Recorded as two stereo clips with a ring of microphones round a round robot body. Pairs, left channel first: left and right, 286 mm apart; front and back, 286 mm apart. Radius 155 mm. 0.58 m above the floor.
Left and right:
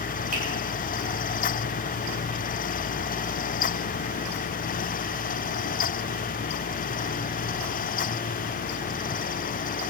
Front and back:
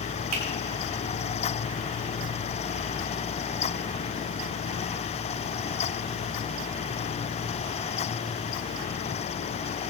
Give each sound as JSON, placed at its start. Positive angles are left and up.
{"t": 0.3, "sound": "a finger snap", "azimuth_deg": -155, "distance_m": 3.0}